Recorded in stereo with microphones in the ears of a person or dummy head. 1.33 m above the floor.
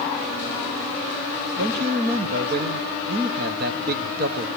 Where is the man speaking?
50° right (ahead or behind), 0.9 m.